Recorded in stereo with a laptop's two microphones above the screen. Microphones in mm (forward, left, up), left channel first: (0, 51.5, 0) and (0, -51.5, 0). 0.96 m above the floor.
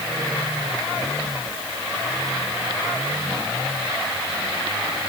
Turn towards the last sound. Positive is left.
No sound to turn to.